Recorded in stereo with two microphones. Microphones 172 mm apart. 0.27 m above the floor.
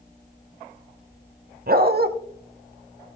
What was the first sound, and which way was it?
A dog barking, 60° right (ahead or behind).